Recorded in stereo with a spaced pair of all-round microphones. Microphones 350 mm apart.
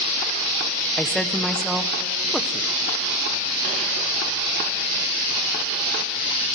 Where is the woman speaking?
Centre (ahead or behind), 0.8 m.